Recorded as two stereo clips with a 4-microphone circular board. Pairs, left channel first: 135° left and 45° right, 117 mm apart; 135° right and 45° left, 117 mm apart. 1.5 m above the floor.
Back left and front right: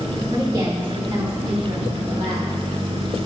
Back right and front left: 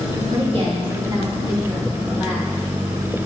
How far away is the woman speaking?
About 3 m.